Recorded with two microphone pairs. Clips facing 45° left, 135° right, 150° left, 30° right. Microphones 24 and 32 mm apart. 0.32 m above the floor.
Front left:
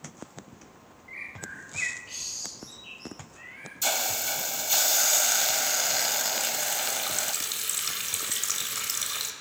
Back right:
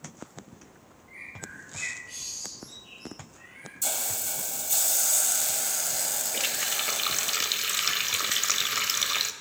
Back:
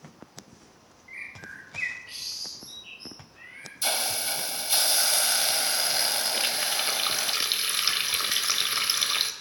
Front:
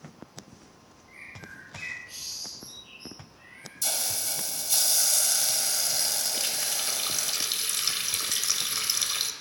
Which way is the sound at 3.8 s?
95° left.